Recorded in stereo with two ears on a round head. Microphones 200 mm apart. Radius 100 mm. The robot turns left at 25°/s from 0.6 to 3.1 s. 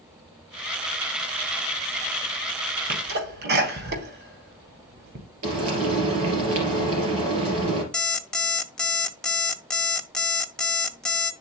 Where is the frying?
70° right (ahead or behind), 3 m.